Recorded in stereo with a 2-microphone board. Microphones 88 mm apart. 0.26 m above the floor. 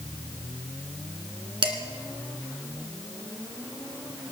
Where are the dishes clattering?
65° right (ahead or behind), 2 m.